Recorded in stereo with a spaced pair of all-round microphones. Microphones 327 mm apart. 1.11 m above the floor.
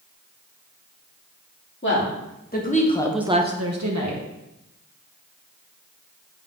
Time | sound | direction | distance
1.8 | a woman speaking | 35° left (ahead or behind) | 2.5 m